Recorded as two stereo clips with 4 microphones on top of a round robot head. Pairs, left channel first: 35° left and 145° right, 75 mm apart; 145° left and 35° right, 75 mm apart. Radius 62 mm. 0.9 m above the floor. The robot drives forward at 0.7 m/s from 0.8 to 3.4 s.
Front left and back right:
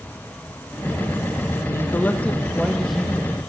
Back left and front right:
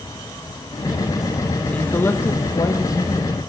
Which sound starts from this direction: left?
A man speaking, at 1.7 s.